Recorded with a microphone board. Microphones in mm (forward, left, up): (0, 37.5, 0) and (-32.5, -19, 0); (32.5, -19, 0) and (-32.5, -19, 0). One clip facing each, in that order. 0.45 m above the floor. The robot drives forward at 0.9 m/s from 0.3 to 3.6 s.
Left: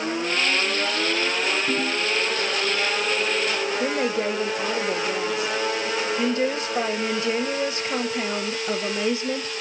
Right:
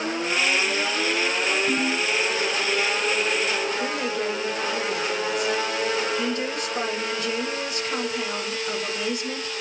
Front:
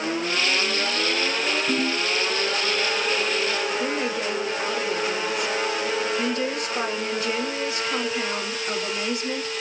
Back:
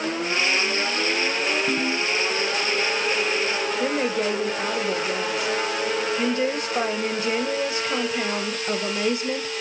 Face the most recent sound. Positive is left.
turn(degrees=125)